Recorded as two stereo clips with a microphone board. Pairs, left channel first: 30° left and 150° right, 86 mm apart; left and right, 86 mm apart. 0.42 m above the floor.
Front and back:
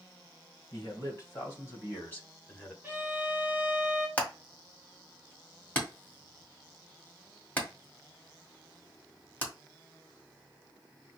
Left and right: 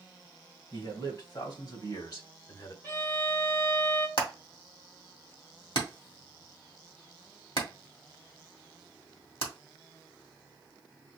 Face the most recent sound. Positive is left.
turn(degrees=100)